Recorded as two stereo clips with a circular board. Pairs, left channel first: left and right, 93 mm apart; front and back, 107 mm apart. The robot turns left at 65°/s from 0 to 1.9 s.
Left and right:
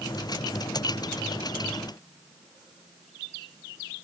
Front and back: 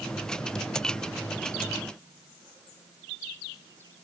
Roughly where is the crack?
I don't hear a crack.